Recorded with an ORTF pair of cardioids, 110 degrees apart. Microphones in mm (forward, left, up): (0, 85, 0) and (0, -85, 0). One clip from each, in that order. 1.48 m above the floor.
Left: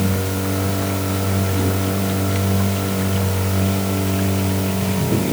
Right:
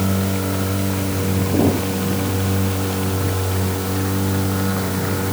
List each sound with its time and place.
Only background noise.